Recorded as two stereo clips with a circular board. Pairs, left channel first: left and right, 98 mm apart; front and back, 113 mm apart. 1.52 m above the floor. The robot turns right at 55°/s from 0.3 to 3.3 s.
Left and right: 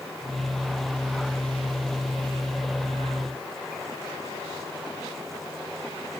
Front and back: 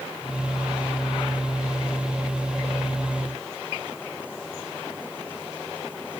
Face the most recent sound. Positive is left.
No sound to turn to.